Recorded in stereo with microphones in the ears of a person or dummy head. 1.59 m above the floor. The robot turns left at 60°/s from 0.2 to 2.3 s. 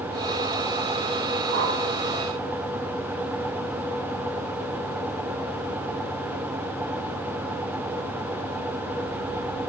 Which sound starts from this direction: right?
A whoosh, at 1.5 s.